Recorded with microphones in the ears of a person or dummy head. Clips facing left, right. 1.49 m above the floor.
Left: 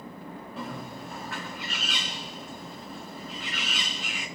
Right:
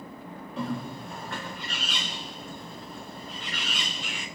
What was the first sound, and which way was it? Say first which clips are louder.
A bird: right 6 dB; 5° left (ahead or behind).